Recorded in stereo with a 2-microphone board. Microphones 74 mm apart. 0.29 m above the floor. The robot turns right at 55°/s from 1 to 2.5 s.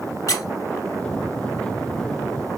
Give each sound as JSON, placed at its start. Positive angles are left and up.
{"t": 0.3, "sound": "a squeak", "side_deg": 50, "distance_m": 0.9}